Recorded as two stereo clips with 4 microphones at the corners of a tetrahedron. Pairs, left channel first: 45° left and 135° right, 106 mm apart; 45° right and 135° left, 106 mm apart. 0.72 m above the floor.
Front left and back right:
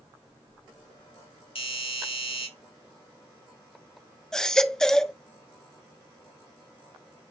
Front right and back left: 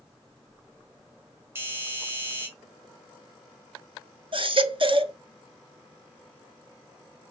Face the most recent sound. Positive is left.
turn(degrees=130)